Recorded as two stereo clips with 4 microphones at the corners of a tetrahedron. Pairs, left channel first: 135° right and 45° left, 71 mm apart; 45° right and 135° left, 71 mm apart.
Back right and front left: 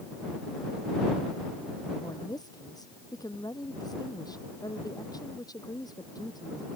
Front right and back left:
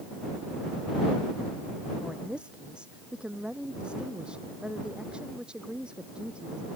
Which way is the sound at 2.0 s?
150° right.